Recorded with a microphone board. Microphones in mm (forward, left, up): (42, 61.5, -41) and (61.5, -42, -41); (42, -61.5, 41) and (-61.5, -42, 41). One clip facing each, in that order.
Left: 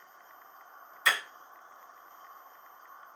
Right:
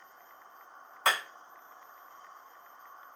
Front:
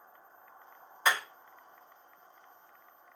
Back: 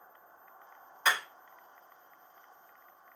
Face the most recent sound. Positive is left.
turn(degrees=-90)